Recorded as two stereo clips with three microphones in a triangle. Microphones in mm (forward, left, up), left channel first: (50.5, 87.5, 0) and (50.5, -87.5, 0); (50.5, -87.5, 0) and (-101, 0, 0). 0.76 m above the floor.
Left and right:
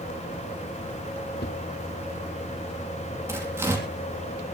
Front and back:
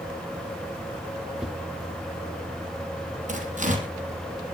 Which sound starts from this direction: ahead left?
A whoosh, at 1.4 s.